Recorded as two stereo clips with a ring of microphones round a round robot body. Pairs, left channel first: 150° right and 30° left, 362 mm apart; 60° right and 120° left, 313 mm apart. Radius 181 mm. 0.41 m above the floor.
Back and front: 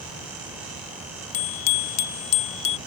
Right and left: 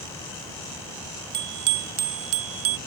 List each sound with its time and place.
1.3 s a bicycle bell: straight behind; by 2.8 s 175° left